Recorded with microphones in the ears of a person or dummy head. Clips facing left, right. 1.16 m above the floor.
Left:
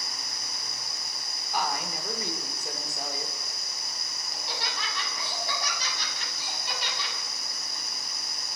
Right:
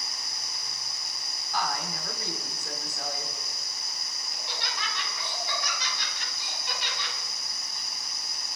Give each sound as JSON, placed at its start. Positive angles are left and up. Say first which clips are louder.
{"t": 1.5, "sound": "a woman speaking", "louder": "left 1 dB", "side_deg": 15, "distance_m": 3.0}
{"t": 4.3, "sound": "laughter", "louder": "left 2 dB", "side_deg": 35, "distance_m": 8.0}